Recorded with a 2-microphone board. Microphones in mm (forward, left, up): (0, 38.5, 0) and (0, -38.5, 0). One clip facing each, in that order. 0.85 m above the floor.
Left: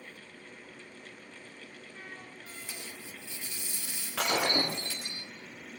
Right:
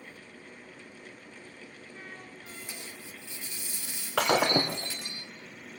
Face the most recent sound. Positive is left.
turn(degrees=-75)  # may be behind; listen again after turning